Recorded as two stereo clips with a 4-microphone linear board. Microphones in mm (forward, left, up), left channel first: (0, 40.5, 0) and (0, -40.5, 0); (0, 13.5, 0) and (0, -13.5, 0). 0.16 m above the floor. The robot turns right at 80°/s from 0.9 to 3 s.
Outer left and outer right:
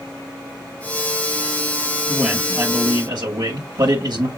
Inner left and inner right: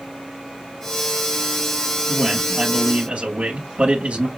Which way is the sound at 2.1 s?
175° left.